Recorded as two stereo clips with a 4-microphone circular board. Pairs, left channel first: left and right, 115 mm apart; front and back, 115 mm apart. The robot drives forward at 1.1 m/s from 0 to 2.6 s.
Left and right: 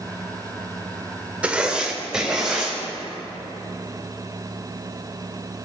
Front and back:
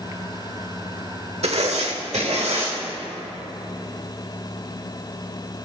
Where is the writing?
170° right, 1.1 m; by 2.8 s 175° right, 2.5 m.